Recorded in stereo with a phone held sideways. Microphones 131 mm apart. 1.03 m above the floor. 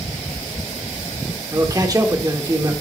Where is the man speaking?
25° right (ahead or behind), 1.3 m.